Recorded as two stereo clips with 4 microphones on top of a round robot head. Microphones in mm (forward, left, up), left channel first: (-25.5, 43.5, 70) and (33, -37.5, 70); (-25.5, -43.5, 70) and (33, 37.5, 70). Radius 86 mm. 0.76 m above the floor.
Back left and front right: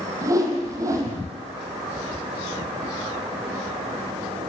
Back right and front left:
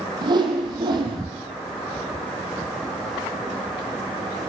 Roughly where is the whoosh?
Ahead.